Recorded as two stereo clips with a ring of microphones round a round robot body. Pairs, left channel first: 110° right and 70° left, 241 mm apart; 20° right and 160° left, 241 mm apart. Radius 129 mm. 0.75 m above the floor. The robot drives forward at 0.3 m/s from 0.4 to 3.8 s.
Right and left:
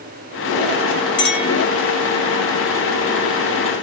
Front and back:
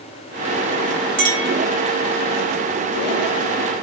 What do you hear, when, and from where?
1.2 s a clink: 160° right, 3.5 m